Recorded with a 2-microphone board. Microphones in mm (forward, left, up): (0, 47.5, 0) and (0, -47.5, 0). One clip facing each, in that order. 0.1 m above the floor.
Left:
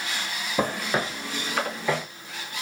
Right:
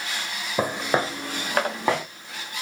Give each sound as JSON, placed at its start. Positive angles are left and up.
{"t": 0.6, "sound": "footsteps", "side_deg": -5, "distance_m": 0.9}